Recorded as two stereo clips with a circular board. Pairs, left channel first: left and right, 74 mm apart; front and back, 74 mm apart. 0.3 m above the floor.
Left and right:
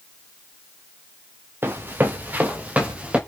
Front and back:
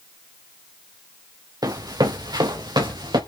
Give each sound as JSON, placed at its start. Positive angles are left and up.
{"t": 1.6, "sound": "running footsteps", "azimuth_deg": -150, "distance_m": 2.5}